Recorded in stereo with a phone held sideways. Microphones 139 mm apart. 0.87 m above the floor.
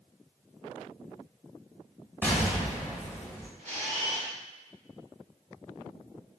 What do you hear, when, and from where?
2.2 s an explosion: 15° left (ahead or behind), 1.0 m
3.6 s a camera shutter: 65° right (ahead or behind), 2 m